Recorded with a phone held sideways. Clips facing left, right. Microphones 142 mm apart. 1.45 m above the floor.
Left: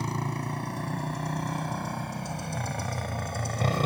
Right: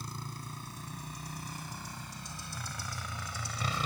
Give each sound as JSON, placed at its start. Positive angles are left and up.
{"t": 0.0, "sound": "a motorcycle", "side_deg": 75}